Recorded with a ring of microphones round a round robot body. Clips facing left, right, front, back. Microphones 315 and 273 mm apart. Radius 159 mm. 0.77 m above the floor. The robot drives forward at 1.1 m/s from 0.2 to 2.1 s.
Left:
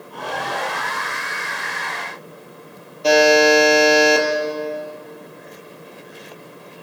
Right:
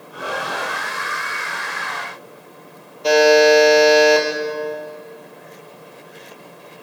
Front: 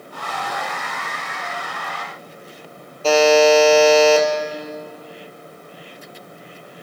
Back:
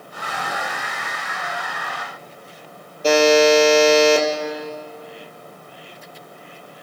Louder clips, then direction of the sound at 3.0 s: Right 2 dB, front 1 dB; 105° left.